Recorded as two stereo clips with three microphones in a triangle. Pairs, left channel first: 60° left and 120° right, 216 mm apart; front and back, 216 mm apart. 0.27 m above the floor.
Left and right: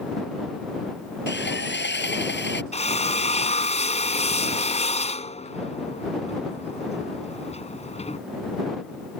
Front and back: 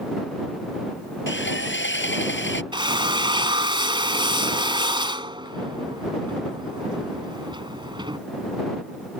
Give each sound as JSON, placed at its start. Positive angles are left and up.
{"t": 1.3, "sound": "sawing", "azimuth_deg": 25}
{"t": 2.7, "sound": "a drill", "azimuth_deg": 115}